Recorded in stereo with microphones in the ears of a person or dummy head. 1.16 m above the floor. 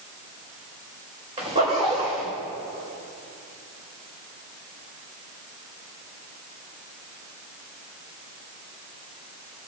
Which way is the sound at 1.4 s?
25° right (ahead or behind).